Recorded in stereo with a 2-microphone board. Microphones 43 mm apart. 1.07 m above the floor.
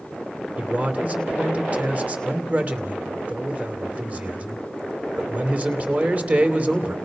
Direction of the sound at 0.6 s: 35° right (ahead or behind).